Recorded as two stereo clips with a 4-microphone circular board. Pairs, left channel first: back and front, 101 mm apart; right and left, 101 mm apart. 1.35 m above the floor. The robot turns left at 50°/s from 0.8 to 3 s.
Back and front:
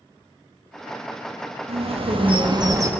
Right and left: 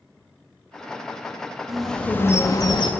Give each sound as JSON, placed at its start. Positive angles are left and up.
{"t": 1.7, "sound": "a bird", "azimuth_deg": 5, "distance_m": 1.3}